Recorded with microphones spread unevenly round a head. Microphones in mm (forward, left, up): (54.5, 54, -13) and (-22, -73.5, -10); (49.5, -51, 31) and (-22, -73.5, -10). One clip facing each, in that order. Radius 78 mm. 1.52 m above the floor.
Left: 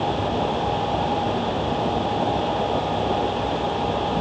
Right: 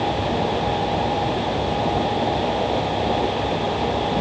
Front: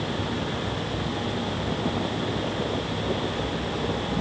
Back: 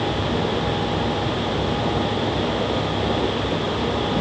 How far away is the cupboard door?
No cupboard door in this recording.